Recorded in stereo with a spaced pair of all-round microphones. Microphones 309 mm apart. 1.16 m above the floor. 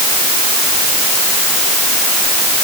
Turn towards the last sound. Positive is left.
No sound to turn to.